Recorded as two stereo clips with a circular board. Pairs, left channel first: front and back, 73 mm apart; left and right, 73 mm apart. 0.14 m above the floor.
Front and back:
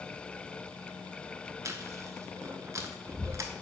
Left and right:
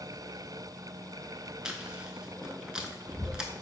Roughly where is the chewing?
Behind.